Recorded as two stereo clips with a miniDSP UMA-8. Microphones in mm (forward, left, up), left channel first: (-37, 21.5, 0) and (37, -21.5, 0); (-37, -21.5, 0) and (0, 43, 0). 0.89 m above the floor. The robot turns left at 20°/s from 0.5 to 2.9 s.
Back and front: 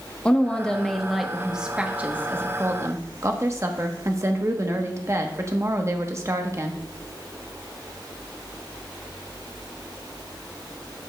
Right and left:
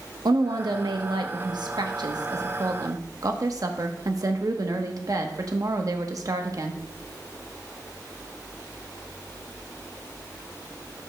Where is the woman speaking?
70° left, 1.0 m; by 6.8 s 25° left, 1.0 m.